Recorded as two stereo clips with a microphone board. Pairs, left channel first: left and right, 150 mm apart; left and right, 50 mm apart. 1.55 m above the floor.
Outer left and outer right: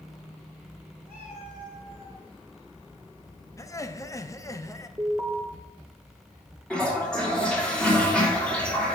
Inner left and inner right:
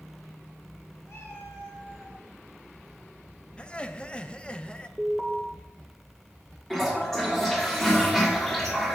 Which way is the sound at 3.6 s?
20° left (ahead or behind).